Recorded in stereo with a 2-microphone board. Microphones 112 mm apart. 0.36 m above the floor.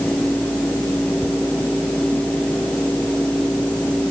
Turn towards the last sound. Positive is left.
No sound to turn to.